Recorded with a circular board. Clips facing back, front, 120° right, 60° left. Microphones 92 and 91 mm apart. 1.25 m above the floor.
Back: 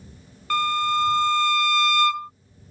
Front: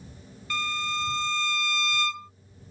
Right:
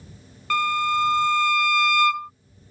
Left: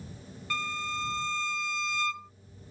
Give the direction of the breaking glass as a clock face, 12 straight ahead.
I don't hear breaking glass.